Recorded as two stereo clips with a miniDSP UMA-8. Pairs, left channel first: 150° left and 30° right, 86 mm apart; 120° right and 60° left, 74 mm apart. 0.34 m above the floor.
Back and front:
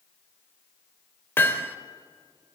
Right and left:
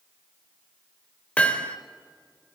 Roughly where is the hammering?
Behind.